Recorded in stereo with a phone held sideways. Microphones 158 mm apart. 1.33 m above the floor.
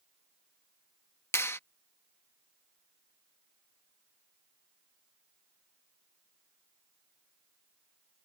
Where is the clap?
15° left (ahead or behind).